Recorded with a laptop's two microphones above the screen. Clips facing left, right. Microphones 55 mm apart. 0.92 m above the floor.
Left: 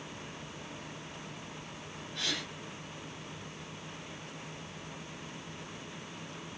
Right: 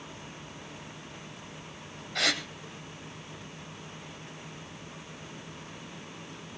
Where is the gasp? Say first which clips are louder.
Right 8 dB; 75° right (ahead or behind), 2 m.